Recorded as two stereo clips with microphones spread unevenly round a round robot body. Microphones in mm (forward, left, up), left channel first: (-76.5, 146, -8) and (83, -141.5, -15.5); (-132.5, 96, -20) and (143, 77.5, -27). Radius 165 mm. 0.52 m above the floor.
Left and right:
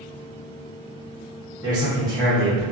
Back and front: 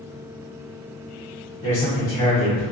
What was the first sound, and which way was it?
A man speaking, 130° right.